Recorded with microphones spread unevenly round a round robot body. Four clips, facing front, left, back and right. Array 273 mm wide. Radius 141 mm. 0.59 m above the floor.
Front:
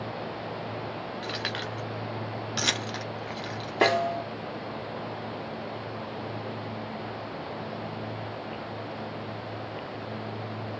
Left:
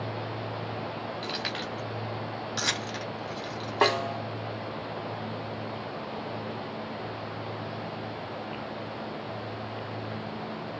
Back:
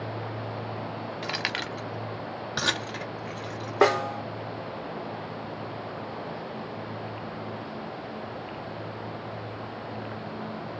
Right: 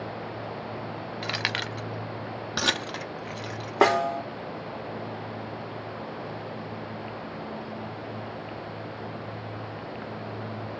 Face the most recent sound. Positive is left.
turn(degrees=-85)